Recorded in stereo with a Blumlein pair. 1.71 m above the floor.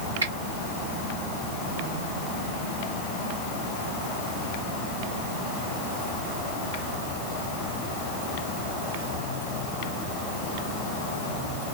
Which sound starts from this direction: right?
A finger snap, at 0.2 s.